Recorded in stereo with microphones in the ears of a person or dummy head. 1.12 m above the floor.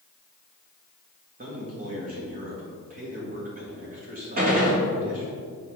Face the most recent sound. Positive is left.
turn(degrees=-45)  # may be behind; listen again after turning